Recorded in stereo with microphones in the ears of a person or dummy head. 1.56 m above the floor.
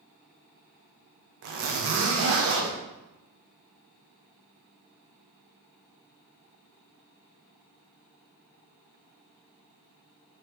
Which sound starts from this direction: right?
A zipper, at 1.4 s.